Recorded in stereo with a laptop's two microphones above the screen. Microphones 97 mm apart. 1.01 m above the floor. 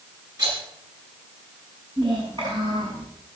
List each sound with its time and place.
0.4 s a rattle: 50° right (ahead or behind), 10 m
2.0 s a child speaking: 60° right (ahead or behind), 6 m